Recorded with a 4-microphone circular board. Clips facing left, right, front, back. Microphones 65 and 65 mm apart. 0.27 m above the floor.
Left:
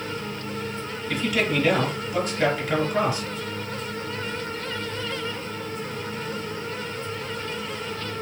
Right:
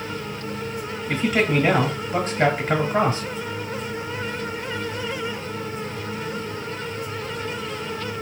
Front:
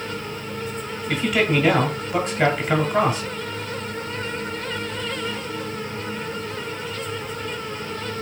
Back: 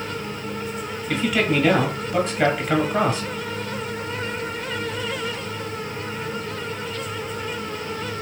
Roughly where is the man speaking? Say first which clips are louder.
Right 3 dB, front 1 dB; right.